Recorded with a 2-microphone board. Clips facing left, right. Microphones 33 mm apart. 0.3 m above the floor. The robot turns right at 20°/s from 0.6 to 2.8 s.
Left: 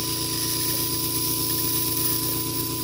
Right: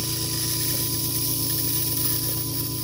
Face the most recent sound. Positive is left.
turn(degrees=90)